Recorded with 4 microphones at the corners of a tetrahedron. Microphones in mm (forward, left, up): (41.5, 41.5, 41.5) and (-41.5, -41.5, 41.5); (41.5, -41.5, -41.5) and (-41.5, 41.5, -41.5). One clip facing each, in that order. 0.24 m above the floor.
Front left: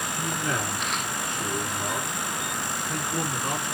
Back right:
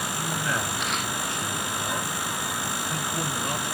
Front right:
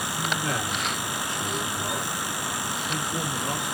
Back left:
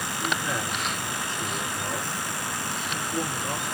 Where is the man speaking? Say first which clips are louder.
Front left 1 dB, even; 10° right, 3.5 m.